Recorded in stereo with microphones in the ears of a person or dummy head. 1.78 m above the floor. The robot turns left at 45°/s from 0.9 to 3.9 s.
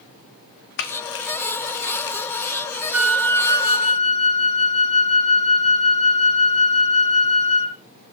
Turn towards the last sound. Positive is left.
turn(degrees=145)